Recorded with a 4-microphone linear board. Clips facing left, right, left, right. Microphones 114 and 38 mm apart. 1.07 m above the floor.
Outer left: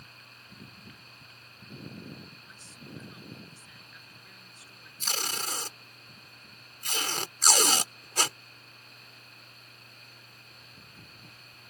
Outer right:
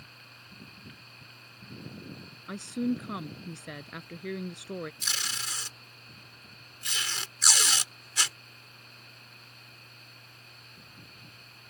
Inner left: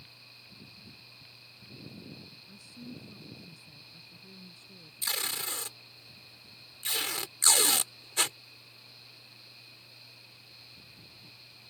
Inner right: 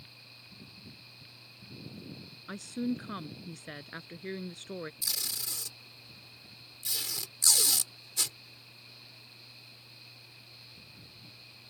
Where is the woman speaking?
75° right (ahead or behind).